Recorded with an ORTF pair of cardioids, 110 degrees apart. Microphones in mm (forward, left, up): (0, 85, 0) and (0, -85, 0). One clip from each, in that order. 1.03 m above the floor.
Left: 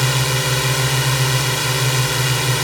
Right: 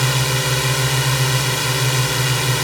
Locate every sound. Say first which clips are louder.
0.0 s a drone: even; 5° left